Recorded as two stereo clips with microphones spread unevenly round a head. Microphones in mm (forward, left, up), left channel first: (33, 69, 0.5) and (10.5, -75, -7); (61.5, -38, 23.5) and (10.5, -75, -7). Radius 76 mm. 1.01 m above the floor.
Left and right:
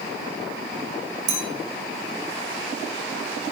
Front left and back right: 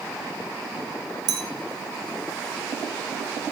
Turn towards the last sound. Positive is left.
turn(degrees=-145)